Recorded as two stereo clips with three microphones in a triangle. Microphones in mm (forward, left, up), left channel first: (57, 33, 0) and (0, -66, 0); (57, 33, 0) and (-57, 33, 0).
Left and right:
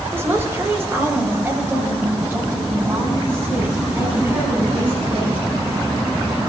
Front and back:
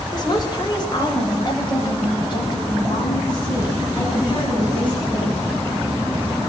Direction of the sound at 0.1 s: 50° right.